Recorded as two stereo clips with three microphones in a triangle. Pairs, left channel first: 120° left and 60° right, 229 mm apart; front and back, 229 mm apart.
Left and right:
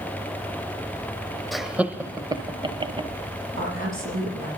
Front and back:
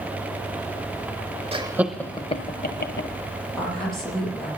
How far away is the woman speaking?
About 8.5 m.